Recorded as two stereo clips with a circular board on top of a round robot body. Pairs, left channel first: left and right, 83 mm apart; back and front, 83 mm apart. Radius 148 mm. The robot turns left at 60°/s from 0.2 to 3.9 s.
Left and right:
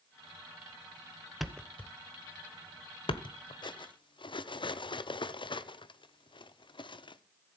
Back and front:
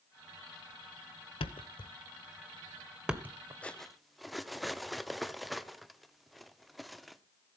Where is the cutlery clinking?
105° left, 0.8 m; by 7.2 s 90° left, 0.8 m.